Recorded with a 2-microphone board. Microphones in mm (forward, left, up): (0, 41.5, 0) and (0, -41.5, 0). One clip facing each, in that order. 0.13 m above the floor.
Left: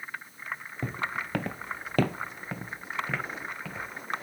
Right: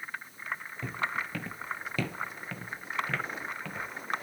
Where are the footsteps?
45° left (ahead or behind), 1.2 m; by 4.2 s centre (ahead or behind), 2.5 m.